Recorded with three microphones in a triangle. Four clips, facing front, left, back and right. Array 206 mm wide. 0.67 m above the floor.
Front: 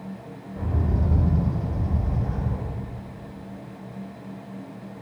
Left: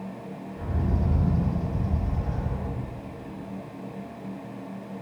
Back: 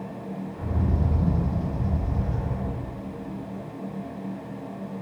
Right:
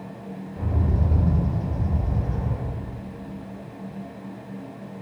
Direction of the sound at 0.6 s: 40° right.